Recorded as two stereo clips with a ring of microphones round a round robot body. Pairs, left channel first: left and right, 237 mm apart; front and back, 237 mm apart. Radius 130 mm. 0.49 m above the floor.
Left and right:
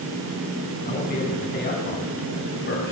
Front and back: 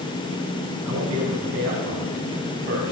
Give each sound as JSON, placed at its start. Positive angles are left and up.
{"t": 0.8, "sound": "a man speaking", "azimuth_deg": 145, "distance_m": 4.5}